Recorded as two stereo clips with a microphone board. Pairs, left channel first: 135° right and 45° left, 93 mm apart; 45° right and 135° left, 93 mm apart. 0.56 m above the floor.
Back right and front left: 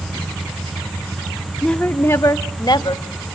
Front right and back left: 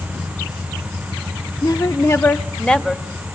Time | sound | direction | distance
1.6 | a woman speaking | 55° right | 0.8 m